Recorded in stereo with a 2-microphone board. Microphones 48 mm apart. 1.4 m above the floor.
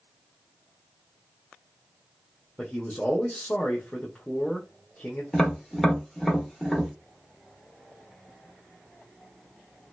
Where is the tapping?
10° left (ahead or behind), 1.1 m.